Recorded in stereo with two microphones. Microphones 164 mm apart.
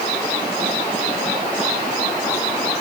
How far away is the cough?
No cough in this recording.